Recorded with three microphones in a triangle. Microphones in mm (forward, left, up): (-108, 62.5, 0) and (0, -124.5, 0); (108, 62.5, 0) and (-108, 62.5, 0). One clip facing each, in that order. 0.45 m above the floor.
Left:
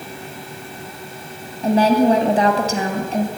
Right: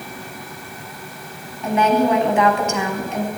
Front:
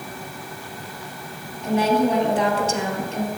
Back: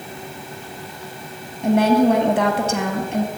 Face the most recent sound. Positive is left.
turn(degrees=170)